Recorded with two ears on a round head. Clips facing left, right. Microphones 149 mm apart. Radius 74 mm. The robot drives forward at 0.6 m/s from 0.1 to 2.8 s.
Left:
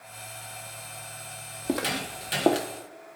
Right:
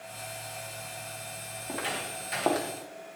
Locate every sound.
1.6 s footsteps: 55° left (ahead or behind), 1.9 m; by 2.7 s 30° left (ahead or behind), 1.7 m